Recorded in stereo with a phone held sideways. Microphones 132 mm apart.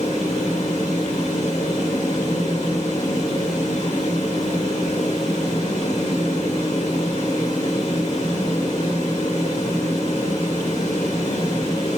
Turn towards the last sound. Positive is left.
turn(degrees=60)  # may be behind; listen again after turning